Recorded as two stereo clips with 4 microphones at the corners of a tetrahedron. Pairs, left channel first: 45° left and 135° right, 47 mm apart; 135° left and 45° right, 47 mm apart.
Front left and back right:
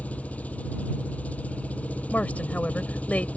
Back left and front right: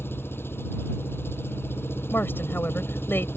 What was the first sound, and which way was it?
An engine running, 100° left.